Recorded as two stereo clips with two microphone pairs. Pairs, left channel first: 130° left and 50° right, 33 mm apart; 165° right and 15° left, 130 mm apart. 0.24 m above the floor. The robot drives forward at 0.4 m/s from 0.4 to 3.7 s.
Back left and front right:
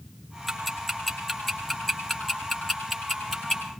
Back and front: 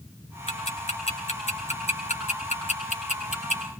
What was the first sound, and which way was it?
Ticking, 145° right.